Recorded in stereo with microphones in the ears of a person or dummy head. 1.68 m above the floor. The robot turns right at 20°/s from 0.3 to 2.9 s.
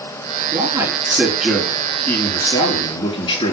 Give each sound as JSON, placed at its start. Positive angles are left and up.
{"t": 0.5, "sound": "a man speaking", "azimuth_deg": -25, "distance_m": 5.0}